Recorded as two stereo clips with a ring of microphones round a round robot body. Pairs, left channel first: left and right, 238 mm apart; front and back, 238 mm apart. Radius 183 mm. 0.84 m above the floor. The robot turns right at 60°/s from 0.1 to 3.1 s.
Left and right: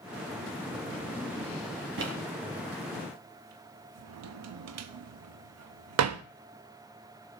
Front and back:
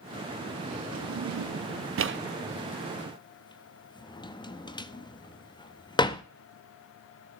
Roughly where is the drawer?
Behind left.